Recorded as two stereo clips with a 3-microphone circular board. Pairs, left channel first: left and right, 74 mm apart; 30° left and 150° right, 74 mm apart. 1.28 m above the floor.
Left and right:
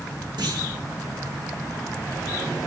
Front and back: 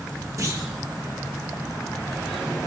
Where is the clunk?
105° right, 1.8 m.